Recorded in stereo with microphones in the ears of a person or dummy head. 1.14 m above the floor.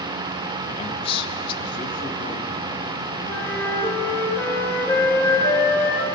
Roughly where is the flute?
Left.